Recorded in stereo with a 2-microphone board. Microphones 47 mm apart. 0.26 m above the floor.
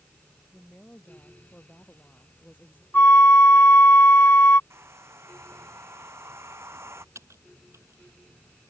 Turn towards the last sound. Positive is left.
turn(degrees=-75)  # may be behind; listen again after turning